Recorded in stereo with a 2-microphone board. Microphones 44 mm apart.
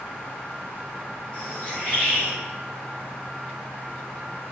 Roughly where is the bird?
Left.